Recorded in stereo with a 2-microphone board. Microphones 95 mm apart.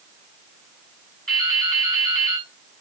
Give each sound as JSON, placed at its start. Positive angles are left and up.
{"t": 1.3, "sound": "dripping", "side_deg": 5, "distance_m": 6.0}